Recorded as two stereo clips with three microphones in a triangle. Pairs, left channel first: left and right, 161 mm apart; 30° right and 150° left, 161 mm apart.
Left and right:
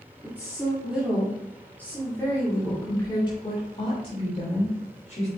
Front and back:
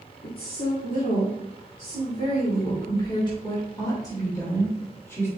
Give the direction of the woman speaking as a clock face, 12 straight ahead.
1 o'clock.